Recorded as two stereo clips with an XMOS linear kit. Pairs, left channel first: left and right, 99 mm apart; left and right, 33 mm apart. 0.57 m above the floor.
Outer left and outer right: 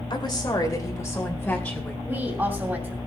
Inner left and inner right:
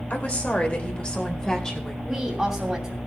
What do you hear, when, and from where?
0.1 s a woman speaking: 50° left (ahead or behind), 2.5 m; by 1.9 s 15° left (ahead or behind), 3 m
2.0 s a woman speaking: 15° right (ahead or behind), 2.5 m